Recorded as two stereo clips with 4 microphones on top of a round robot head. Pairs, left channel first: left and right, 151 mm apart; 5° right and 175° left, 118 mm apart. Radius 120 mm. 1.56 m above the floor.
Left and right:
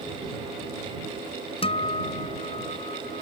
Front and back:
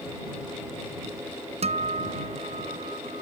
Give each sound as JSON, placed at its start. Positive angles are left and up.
{"t": 1.6, "sound": "a guitar", "azimuth_deg": 145}